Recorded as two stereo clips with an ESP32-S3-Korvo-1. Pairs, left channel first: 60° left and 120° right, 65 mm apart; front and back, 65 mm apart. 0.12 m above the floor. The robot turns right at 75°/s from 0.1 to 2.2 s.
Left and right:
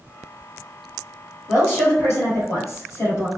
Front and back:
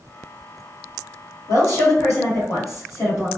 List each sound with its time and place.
1.5 s a woman speaking: 20° right, 1.8 m; by 3.3 s 35° left, 1.8 m